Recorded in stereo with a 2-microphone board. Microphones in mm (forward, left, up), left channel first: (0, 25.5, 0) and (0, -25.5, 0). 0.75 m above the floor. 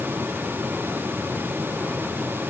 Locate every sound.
Only background noise.